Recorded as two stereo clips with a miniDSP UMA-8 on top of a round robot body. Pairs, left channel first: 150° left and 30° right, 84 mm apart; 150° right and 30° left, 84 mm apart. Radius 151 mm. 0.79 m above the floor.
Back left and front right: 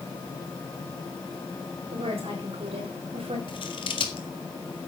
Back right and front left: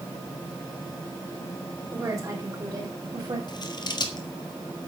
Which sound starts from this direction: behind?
Scissors, at 3.5 s.